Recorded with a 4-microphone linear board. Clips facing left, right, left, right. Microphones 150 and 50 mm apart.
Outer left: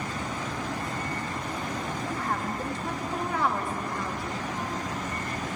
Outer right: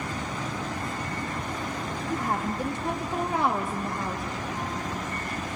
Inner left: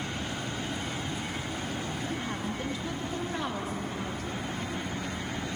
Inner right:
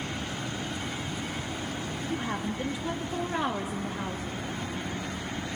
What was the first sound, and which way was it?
A woman speaking, 20° right (ahead or behind).